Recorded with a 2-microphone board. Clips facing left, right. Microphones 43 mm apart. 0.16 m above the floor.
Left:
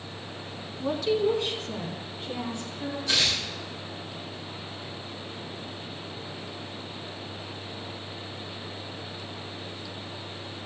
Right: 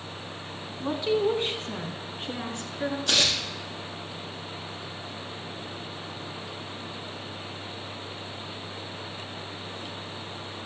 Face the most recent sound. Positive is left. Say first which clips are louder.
# even
turn(degrees=-60)  # may be behind; listen again after turning